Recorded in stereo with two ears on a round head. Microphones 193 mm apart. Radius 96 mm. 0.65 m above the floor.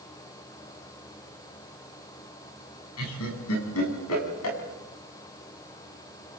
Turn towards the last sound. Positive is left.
turn(degrees=75)  # may be behind; listen again after turning